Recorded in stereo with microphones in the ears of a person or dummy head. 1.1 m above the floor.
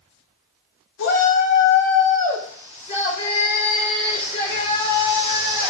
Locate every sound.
1.0 s a shout: 60° left (ahead or behind), 1.4 m; by 5.7 s 25° left (ahead or behind), 4 m